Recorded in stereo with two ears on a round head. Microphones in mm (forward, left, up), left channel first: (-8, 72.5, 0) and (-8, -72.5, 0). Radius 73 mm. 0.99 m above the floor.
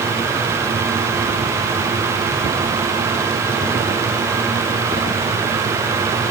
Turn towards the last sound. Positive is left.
No sound to turn to.